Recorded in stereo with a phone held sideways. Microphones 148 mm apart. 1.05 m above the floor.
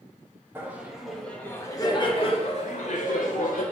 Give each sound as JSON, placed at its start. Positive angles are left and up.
{"t": 0.6, "sound": "laughter", "side_deg": -15, "distance_m": 1.1}